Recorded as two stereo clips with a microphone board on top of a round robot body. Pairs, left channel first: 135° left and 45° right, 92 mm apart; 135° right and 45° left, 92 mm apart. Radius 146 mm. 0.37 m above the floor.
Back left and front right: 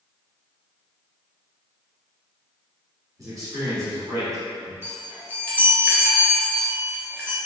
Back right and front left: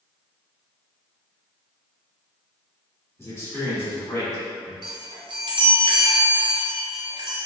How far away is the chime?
About 0.9 m.